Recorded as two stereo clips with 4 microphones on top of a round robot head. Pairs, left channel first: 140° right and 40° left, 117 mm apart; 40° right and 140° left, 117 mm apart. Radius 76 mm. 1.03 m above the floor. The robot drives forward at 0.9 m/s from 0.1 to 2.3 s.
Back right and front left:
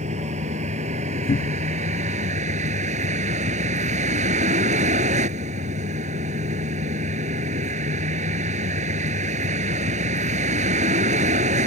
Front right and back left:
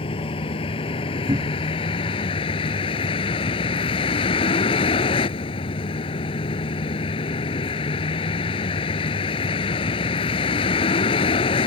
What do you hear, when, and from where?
0.0 s a vehicle: 5° left; by 11.7 s 10° left
1.3 s a cupboard door: 165° right; by 1.8 s 170° right